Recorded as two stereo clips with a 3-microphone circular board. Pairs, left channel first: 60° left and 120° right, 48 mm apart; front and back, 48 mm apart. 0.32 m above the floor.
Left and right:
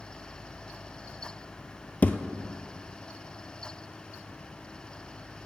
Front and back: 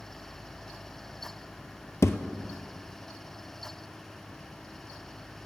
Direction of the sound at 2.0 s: 5° left.